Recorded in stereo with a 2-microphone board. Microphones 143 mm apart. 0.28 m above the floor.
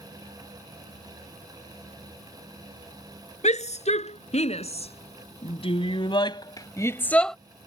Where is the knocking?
I don't hear knocking.